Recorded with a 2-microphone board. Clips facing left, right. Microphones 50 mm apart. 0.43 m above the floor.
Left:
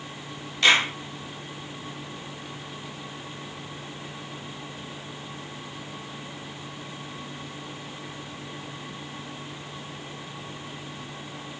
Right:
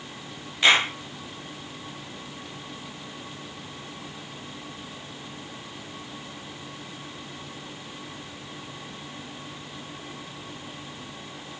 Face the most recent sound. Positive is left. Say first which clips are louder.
# even
turn(degrees=-15)  # may be behind; listen again after turning